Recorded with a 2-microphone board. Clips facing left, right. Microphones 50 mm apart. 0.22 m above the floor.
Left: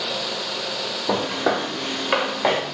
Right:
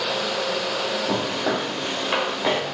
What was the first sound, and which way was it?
Footsteps, 45° left (ahead or behind).